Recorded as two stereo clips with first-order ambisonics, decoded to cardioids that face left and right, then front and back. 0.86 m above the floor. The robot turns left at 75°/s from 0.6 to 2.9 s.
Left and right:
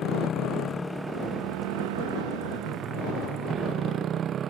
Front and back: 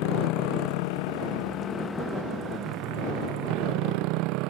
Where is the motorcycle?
25° left; by 4.5 s 150° right.